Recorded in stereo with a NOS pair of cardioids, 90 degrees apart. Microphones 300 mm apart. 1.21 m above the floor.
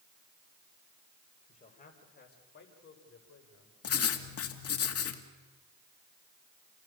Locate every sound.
1.5 s a man speaking: 25° left, 6 m; by 3.7 s 55° left, 6 m
3.8 s writing: 50° left, 2.5 m